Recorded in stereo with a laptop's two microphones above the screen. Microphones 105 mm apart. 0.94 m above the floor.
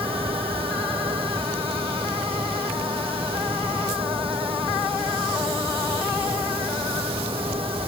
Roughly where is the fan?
Right.